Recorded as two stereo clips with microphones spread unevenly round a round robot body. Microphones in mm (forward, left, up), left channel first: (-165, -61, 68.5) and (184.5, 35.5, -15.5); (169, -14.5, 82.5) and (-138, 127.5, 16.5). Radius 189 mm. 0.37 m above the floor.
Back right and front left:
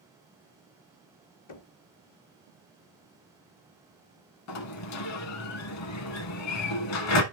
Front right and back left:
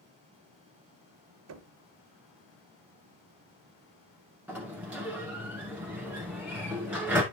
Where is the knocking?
145° left, 0.9 m.